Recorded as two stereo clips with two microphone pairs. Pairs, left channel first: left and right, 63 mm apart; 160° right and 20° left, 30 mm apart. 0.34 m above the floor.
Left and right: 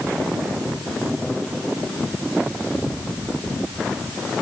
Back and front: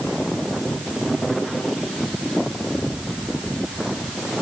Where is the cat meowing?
No cat meowing in this recording.